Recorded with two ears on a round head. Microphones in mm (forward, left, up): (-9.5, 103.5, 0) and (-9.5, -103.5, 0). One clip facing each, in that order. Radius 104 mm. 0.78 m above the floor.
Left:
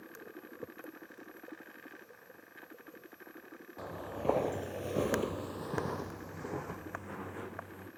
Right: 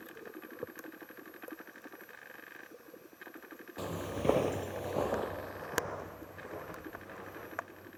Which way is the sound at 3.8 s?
45° right (ahead or behind).